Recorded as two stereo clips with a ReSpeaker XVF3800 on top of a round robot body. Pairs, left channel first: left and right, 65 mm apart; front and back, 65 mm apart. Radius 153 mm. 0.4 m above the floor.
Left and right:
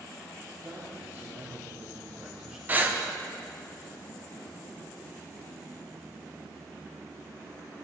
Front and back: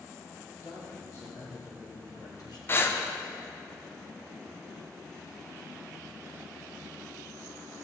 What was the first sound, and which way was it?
A man speaking, 50° right.